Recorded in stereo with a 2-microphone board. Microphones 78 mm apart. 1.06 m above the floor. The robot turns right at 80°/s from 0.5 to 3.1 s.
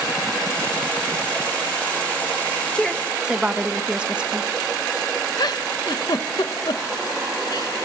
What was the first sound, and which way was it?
A woman speaking, 15° left (ahead or behind).